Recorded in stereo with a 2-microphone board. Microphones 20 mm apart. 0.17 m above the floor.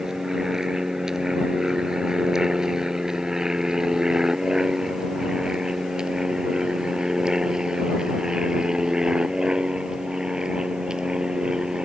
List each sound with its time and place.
0.0 s an aircraft: 25° right (ahead or behind); by 11.8 s 40° right (ahead or behind)